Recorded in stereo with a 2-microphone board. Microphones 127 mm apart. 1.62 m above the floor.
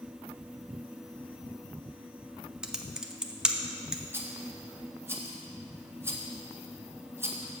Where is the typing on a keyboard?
5° right (ahead or behind), 0.5 m.